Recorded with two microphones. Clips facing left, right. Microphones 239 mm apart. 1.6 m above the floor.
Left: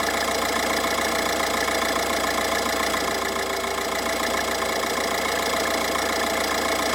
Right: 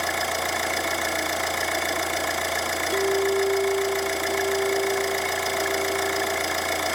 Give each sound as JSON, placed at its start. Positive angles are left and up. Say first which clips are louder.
{"t": 0.0, "sound": "an engine running", "louder": "left 4 dB", "side_deg": 75, "distance_m": 2.5}
{"t": 2.9, "sound": "a clink", "louder": "right 6 dB", "side_deg": -65, "distance_m": 3.0}